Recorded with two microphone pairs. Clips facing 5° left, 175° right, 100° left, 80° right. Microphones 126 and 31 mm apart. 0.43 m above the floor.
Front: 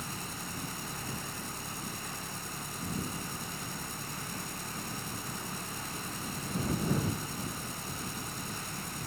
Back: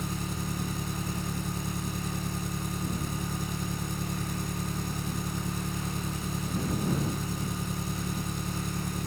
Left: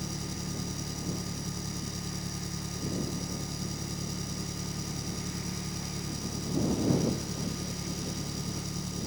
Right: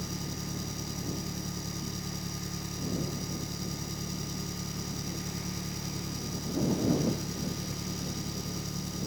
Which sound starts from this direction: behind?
An engine running, at 0.0 s.